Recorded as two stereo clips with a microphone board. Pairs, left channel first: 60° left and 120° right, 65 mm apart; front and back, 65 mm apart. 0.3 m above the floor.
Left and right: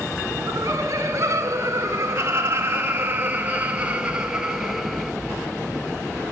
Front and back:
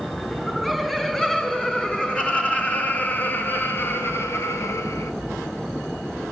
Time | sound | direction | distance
0.3 | laughter | 85° right | 4.5 m